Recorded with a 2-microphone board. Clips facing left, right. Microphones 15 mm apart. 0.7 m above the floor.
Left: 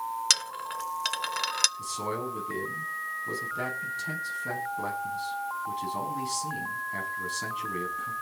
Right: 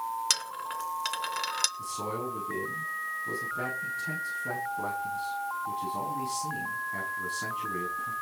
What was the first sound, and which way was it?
A dropped coin, 15° left (ahead or behind).